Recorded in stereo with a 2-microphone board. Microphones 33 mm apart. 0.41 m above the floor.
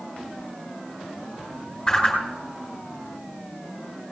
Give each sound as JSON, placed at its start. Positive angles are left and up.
{"t": 1.9, "sound": "a whoosh", "side_deg": 15, "distance_m": 3.5}